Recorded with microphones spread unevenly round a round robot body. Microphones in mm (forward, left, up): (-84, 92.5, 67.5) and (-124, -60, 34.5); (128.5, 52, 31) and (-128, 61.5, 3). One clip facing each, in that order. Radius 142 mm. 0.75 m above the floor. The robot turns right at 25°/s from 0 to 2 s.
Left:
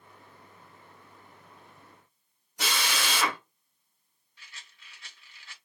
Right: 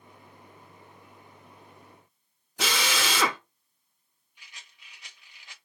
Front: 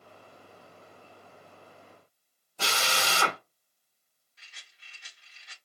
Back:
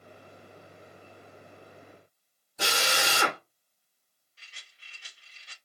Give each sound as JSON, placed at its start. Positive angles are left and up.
{"t": 2.6, "sound": "a drill", "azimuth_deg": -105, "distance_m": 0.8}
{"t": 4.4, "sound": "a rattle", "azimuth_deg": -155, "distance_m": 1.3}